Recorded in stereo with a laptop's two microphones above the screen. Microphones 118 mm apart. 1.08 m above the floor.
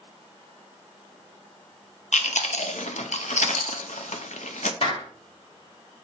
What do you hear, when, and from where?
2.1 s chewing: 85° left, 0.7 m
4.8 s a clap: 60° left (ahead or behind), 2 m